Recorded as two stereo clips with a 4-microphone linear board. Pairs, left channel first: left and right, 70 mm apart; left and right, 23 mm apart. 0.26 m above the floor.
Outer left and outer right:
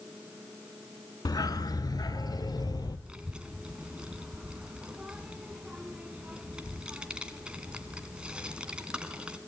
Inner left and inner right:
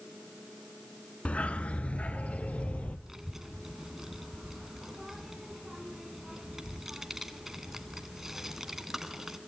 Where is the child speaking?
15° right (ahead or behind), 1.9 m.